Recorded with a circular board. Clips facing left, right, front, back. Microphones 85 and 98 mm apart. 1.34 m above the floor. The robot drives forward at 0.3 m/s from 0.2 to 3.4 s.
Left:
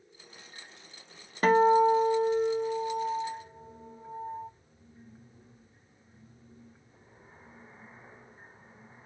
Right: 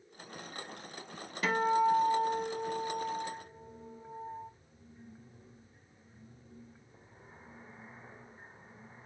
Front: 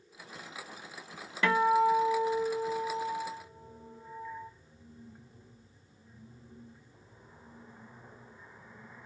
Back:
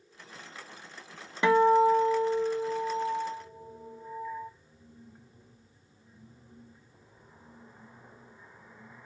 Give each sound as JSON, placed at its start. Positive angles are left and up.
{"t": 1.4, "sound": "a guitar", "azimuth_deg": 115, "distance_m": 0.5}